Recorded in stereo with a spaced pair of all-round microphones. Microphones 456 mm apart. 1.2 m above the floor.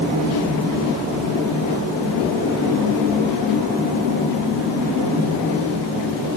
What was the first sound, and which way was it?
Only background noise.